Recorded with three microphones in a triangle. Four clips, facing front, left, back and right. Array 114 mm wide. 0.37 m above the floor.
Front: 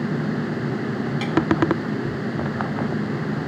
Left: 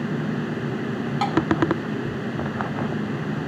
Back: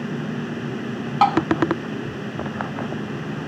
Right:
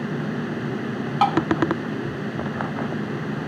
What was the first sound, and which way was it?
Tapping, 160° right.